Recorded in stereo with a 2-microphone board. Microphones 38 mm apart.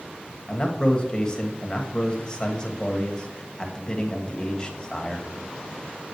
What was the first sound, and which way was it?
A man speaking, 20° left (ahead or behind).